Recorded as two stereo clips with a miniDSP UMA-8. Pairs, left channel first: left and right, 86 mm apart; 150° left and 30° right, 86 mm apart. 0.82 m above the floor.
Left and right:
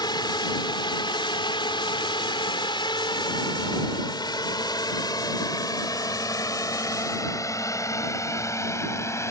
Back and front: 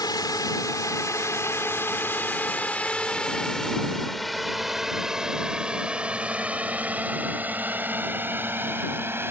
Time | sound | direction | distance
0.0 | a drone | 115° left | ?